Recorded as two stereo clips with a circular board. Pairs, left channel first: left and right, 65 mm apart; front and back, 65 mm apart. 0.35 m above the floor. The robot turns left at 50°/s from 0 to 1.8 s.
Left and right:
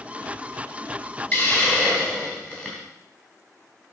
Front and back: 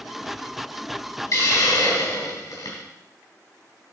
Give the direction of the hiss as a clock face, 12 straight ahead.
11 o'clock.